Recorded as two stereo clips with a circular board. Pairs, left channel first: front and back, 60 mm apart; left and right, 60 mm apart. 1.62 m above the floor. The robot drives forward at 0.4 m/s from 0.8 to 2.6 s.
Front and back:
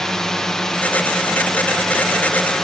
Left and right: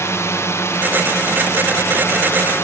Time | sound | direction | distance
0.0 | a drone | 80° left | ?